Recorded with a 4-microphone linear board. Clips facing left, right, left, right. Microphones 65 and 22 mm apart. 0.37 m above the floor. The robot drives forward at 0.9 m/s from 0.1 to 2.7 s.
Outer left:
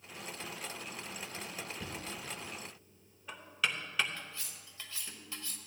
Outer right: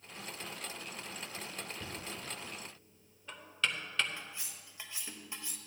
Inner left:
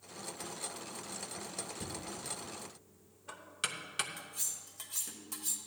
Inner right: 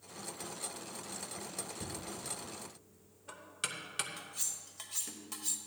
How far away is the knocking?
About 1.0 m.